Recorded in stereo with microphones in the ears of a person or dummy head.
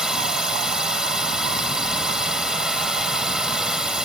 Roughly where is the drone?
Centre.